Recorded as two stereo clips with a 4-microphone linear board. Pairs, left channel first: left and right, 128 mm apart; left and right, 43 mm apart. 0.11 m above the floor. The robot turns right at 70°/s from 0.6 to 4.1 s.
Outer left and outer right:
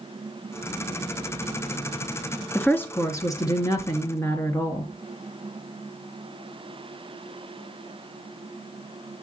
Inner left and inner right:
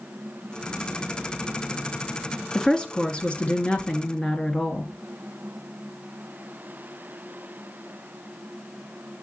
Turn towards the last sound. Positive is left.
turn(degrees=20)  # may be behind; listen again after turning